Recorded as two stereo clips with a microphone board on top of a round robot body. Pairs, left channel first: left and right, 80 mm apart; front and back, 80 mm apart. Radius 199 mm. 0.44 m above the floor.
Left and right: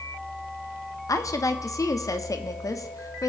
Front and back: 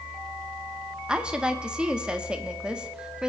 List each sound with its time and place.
1.1 s a woman speaking: 105° left, 1.4 m